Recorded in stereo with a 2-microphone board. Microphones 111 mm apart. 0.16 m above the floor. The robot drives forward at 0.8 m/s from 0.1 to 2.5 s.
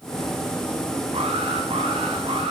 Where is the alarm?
60° right (ahead or behind), 10 m; by 2.5 s 55° right (ahead or behind), 10.5 m.